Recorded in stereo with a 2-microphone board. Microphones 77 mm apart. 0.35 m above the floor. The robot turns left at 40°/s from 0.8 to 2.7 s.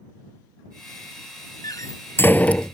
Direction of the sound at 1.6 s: 50° left (ahead or behind).